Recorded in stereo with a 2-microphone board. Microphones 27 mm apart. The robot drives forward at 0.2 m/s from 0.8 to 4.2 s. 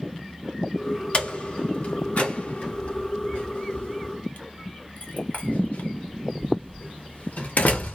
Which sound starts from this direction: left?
A door slam, at 1.1 s.